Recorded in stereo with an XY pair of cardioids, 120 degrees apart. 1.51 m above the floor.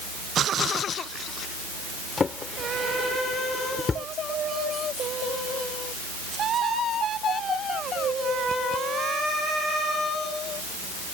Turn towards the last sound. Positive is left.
turn(degrees=30)